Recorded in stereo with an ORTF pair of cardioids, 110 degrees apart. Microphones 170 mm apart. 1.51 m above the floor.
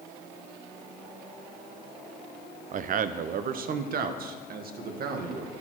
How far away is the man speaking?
About 0.7 m.